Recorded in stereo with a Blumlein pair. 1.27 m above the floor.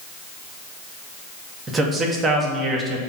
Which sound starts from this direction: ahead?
A man speaking, at 1.7 s.